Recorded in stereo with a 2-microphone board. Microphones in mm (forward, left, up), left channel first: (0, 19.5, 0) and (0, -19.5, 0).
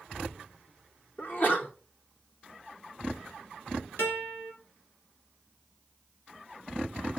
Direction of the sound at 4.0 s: 65° left (ahead or behind).